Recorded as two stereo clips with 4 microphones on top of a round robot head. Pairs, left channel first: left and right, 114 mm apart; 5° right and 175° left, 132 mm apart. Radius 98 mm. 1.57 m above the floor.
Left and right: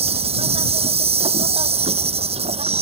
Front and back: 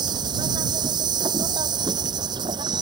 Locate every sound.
0.0 s an insect: 120° right